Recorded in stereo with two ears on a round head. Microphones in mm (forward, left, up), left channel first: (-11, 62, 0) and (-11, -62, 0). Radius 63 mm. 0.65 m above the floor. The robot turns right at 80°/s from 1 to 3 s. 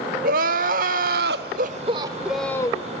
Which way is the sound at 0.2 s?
110° right.